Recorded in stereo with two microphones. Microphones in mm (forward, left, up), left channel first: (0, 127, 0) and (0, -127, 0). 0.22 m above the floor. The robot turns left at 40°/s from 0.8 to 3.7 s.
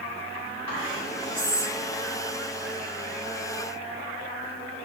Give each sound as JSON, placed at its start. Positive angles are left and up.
{"t": 0.7, "sound": "whispering", "side_deg": 20, "distance_m": 1.0}